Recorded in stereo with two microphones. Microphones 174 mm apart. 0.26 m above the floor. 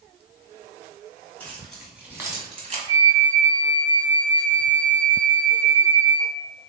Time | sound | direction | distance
1.4 | keys jangling | 10° left (ahead or behind) | 1.6 m
2.9 | a flute | 30° left (ahead or behind) | 0.8 m